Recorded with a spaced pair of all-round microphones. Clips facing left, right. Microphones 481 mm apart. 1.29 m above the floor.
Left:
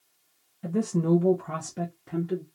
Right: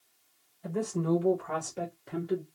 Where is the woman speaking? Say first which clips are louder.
Left 5 dB; 85° left, 0.9 m; by 2.4 s 10° left (ahead or behind), 1.0 m.